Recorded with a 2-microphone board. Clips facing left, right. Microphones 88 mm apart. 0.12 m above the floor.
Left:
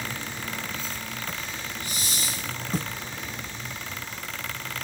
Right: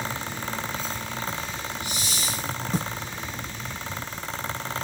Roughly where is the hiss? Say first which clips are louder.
Right 2 dB; left.